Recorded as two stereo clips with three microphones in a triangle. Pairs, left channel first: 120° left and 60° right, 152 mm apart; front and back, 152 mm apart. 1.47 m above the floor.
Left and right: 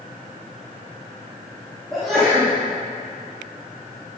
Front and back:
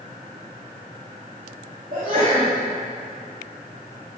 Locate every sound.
1.9 s a sneeze: 150° right, 3 m